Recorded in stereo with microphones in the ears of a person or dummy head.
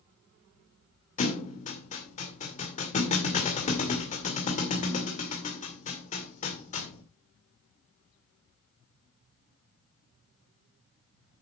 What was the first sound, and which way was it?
A thud, 35° left (ahead or behind).